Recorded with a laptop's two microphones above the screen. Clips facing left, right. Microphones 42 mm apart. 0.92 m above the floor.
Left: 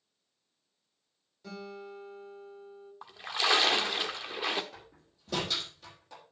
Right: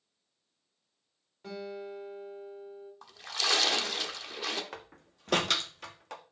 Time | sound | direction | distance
1.4 | a guitar | 30° right (ahead or behind) | 3.5 m
3.0 | a splash | 20° left (ahead or behind) | 1.2 m
4.7 | a door slam | 65° right (ahead or behind) | 1.2 m